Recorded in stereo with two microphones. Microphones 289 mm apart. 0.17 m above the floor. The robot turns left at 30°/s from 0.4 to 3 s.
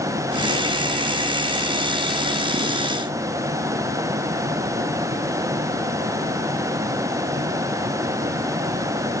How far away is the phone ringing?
No phone ringing in this recording.